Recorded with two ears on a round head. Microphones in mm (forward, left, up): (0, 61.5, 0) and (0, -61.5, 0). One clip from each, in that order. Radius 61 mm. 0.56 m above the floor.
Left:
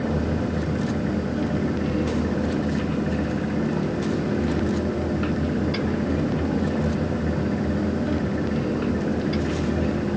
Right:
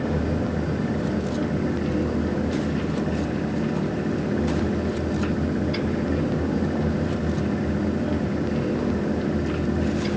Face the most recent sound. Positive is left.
No sound to turn to.